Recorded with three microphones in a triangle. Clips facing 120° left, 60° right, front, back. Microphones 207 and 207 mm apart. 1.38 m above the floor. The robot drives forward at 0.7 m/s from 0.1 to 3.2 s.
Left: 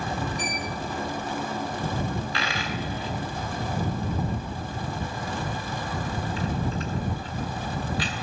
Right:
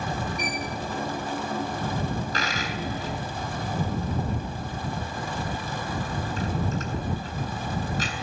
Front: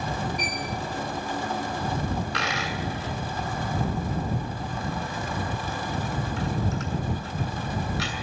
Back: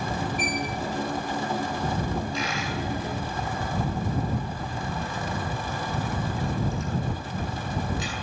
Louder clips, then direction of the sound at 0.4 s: Right 1 dB, back 3 dB; 140° right.